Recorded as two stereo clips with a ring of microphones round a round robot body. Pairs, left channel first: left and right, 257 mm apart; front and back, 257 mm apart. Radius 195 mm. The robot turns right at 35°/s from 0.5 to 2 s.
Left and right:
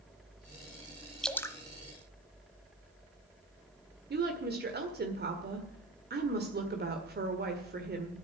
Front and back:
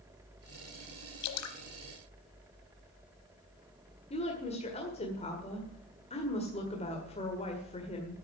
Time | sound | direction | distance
1.2 | dripping | straight ahead | 1.1 m
4.1 | a woman speaking | 60° right | 1.8 m